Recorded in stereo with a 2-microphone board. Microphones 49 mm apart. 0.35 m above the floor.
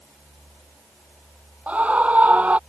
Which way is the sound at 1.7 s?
30° right (ahead or behind).